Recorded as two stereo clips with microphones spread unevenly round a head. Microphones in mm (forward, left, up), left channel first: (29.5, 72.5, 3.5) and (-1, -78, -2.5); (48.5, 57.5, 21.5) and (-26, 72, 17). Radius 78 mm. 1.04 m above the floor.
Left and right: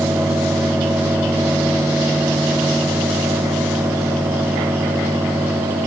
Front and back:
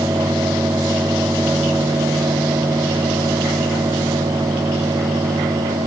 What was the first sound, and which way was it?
Only background noise.